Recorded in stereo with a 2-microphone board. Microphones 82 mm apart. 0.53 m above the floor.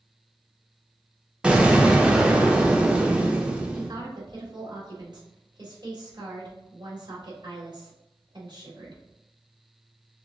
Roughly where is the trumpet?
I don't hear a trumpet.